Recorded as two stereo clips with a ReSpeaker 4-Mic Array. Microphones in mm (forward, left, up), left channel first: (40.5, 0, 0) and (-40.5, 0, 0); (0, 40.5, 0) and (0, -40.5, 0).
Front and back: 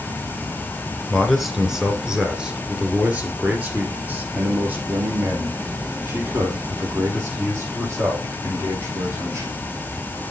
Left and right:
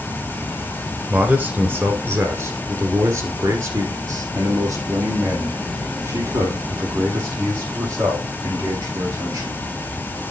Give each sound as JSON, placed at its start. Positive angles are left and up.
{"t": 1.1, "sound": "a man speaking", "azimuth_deg": -85, "distance_m": 1.5}